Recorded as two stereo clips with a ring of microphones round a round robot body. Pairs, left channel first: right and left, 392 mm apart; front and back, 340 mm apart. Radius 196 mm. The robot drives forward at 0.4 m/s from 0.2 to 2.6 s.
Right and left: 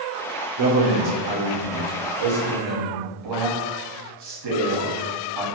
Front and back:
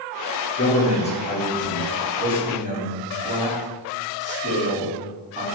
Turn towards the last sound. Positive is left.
turn(degrees=115)